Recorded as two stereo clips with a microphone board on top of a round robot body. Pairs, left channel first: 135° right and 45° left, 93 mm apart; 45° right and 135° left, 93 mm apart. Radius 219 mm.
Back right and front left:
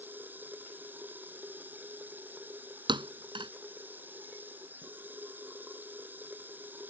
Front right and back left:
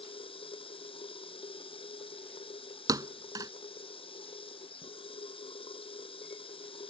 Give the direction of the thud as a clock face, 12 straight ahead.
9 o'clock.